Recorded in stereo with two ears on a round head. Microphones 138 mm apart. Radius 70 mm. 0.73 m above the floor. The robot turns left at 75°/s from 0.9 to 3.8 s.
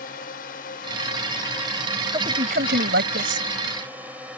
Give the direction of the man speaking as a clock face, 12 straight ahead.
1 o'clock.